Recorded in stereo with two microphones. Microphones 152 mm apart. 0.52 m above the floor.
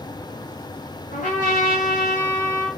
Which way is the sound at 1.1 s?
60° left (ahead or behind).